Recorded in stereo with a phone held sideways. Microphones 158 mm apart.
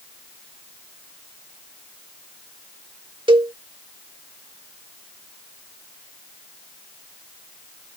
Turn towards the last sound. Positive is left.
turn(degrees=-30)  # may be behind; listen again after turning